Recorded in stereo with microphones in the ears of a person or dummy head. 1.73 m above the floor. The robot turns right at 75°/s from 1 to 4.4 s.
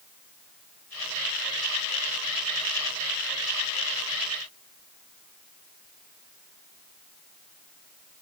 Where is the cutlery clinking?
I don't hear cutlery clinking.